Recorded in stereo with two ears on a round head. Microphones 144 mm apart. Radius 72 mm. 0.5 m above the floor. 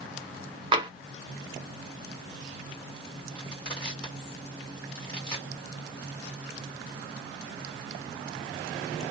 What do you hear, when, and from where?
0.7 s tapping: 25° right (ahead or behind), 0.6 m
3.4 s crushing: 10° left (ahead or behind), 1.9 m